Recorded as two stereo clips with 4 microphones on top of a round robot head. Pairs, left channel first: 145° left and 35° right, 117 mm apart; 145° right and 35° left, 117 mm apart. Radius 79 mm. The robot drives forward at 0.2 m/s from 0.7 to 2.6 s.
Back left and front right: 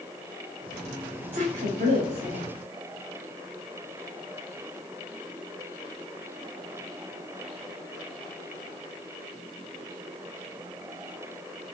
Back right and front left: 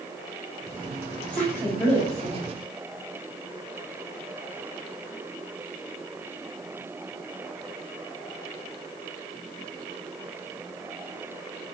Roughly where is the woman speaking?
Ahead right.